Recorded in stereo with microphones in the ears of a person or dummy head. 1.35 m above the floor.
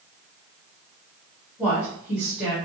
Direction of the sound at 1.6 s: 10° right (ahead or behind).